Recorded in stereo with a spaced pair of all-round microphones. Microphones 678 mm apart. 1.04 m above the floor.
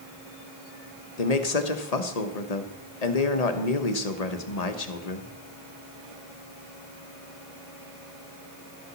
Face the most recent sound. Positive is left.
turn(degrees=65)  # may be behind; listen again after turning